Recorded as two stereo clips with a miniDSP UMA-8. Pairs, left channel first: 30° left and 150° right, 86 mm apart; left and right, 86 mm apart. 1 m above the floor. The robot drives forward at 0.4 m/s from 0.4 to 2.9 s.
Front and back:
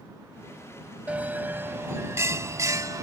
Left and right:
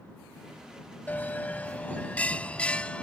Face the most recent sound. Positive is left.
turn(degrees=165)